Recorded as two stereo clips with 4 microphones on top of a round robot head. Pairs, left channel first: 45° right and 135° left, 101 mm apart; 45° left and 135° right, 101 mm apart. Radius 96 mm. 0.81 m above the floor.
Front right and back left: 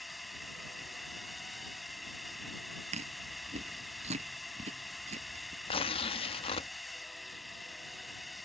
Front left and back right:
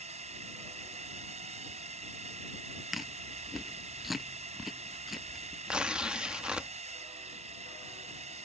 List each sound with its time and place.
0.0 s a drone: 135° right
2.9 s chewing: 140° left
5.7 s tearing paper: 50° right